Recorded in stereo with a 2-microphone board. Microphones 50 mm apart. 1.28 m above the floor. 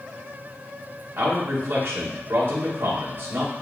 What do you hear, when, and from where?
1.2 s a man speaking: 50° right (ahead or behind), 3 m